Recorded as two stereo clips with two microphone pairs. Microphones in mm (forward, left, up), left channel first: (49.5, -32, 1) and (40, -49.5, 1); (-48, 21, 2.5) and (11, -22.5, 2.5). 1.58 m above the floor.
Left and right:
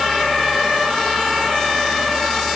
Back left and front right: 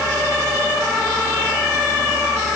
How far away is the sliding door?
No sliding door in this recording.